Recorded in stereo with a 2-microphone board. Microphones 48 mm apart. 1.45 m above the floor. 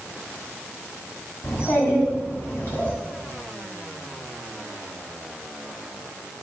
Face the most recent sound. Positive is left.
turn(degrees=45)  # may be behind; listen again after turning